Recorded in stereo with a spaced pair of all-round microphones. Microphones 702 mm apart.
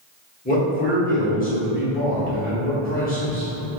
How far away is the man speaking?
About 1.5 m.